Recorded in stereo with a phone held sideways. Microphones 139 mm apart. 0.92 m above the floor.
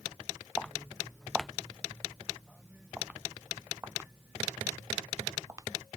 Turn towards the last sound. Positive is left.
turn(degrees=-25)  # may be behind; listen again after turning